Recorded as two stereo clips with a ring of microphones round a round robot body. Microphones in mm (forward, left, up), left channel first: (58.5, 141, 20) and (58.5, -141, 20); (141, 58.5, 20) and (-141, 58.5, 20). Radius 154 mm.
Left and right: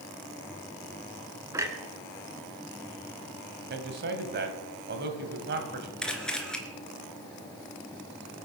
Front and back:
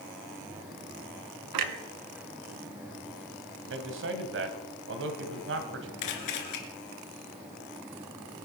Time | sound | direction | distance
1.5 | a clunk | 170° right | 1.1 m
3.7 | a man speaking | 140° right | 2 m
6.0 | a camera shutter | 5° left | 2.5 m